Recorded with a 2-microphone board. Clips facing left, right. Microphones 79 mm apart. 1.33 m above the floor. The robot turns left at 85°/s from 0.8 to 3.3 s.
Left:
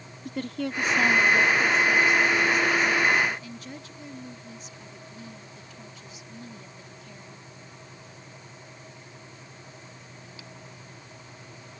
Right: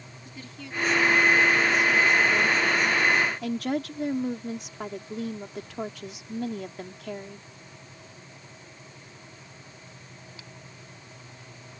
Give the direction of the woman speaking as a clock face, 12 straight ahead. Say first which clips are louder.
Left 12 dB; 8 o'clock.